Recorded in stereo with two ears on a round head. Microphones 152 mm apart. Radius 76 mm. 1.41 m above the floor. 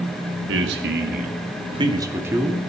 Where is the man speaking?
85° right, 2 m; by 2.6 s 10° right (ahead or behind), 3 m.